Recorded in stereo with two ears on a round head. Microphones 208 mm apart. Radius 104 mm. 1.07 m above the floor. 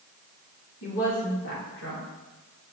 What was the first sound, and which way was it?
A woman speaking, 50° left (ahead or behind).